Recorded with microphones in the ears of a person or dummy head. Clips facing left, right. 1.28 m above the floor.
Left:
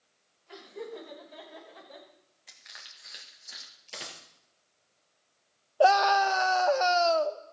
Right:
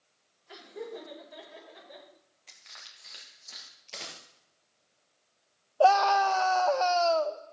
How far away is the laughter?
About 6 m.